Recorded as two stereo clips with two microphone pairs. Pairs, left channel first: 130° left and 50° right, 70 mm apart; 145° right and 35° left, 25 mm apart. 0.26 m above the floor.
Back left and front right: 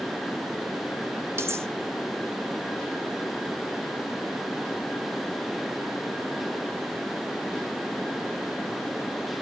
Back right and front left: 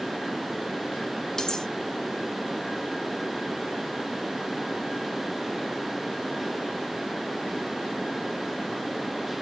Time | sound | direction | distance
1.4 | cutlery clinking | 85° right | 1.1 m